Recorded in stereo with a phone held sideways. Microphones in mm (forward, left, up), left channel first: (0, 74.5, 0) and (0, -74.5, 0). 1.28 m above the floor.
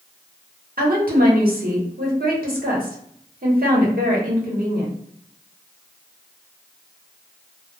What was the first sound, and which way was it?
A woman speaking, 80° right.